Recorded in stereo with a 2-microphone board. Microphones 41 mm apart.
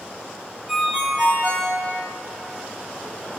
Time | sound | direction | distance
0.7 | a ringtone | 15° right (ahead or behind) | 2 m